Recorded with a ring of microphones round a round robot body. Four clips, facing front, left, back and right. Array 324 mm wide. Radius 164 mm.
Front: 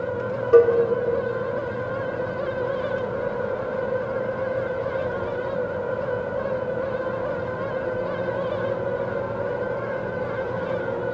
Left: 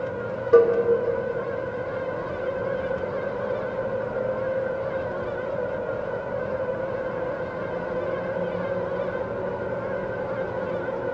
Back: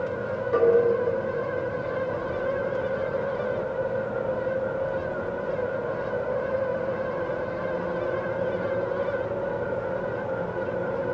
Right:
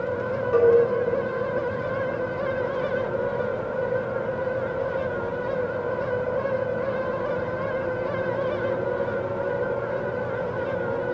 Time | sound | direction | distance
0.5 | a cowbell | 40° left | 1.3 m